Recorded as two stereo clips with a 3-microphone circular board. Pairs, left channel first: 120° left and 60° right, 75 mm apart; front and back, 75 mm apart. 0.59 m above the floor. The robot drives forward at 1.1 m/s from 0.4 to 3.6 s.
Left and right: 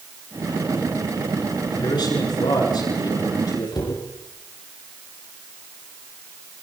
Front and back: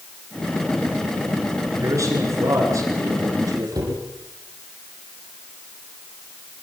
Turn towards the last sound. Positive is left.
turn(degrees=140)